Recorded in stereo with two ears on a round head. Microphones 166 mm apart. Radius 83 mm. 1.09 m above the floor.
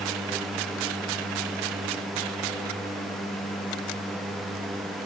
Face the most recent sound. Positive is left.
No sound to turn to.